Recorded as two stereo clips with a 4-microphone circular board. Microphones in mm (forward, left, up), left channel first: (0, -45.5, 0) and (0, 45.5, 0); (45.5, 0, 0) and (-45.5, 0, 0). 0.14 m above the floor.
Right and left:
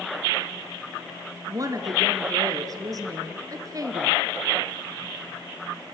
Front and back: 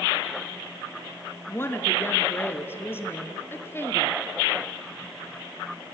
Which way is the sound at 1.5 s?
55° left.